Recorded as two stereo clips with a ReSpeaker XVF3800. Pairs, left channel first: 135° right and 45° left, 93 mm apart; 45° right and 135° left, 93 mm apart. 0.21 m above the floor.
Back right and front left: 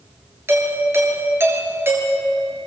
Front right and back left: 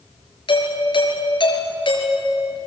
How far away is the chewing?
I don't hear chewing.